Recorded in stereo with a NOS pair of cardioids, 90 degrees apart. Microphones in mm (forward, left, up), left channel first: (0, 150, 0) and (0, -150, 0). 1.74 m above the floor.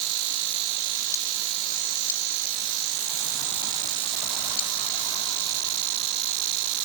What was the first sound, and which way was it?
Only background noise.